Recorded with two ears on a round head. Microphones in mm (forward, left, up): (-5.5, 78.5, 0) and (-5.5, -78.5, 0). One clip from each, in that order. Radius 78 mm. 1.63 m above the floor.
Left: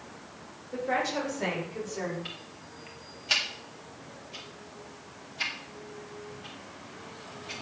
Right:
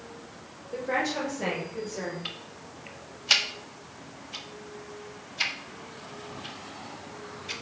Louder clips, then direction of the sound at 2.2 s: Right 3 dB; 30° right (ahead or behind).